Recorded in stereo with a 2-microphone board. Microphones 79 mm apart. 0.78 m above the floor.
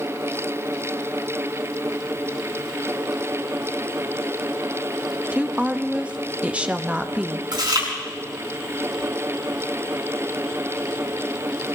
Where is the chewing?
70° right (ahead or behind), 5.5 m.